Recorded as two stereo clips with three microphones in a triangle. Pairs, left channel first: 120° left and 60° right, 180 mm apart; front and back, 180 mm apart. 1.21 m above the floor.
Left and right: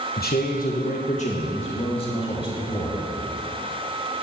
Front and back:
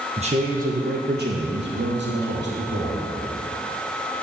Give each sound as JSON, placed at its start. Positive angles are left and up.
{"t": 0.2, "sound": "a man speaking", "azimuth_deg": 130, "distance_m": 1.1}